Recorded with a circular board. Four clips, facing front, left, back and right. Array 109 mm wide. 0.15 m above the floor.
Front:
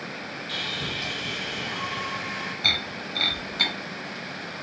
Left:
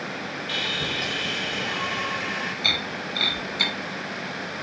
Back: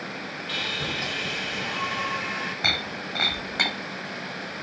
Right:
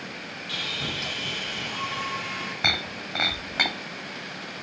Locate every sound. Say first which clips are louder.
0.5 s sawing: left 2 dB, back 3 dB; 125° left, 4 m
2.6 s breaking glass: left 1 dB, back 2 dB; 125° right, 2 m